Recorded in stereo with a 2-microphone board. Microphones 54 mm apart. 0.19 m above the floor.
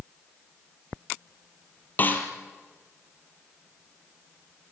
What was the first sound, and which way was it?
A snare drum, 35° left (ahead or behind).